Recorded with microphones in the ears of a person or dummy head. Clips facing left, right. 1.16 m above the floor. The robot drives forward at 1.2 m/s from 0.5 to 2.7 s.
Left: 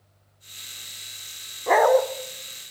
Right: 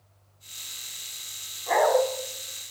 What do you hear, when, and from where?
1.7 s a dog barking: 60° left (ahead or behind), 1.3 m; by 2.0 s 45° left (ahead or behind), 1.5 m